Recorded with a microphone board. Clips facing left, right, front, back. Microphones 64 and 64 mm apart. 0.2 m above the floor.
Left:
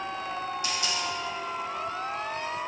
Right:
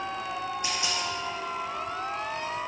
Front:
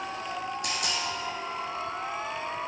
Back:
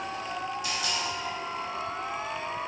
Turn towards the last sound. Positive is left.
turn(degrees=-25)